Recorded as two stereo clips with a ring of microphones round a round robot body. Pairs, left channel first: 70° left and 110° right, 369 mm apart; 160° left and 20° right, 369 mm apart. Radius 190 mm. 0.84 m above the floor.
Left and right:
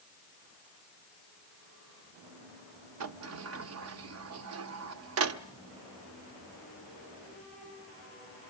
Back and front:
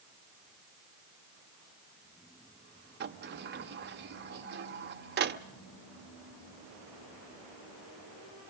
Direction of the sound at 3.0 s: 75° right.